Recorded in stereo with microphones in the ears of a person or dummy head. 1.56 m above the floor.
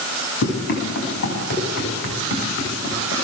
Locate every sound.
0.4 s running footsteps: 55° left (ahead or behind), 8.5 m; by 3.1 s 65° left (ahead or behind), 10 m